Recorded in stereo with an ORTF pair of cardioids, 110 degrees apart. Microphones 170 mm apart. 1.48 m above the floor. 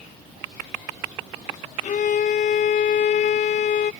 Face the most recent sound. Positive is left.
turn(degrees=50)